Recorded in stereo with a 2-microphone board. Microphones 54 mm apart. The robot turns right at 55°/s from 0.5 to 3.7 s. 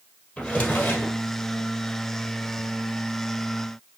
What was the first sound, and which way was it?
A drawer, 25° left.